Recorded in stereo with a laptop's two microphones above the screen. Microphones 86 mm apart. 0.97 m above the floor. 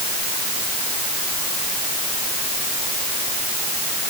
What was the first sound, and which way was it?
Only background noise.